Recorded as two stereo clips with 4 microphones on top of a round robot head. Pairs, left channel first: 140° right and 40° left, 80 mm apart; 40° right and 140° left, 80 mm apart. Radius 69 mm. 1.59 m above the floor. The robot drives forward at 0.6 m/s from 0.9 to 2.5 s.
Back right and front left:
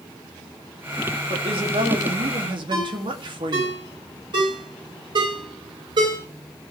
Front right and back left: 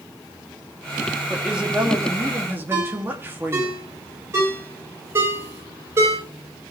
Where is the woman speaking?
55° left, 3 m; by 3.7 s 70° left, 2.5 m.